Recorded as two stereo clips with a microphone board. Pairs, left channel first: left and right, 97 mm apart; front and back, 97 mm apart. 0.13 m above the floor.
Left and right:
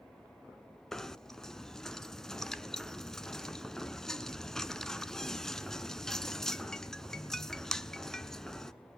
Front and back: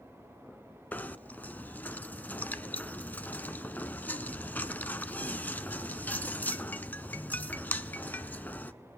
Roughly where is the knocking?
Ahead.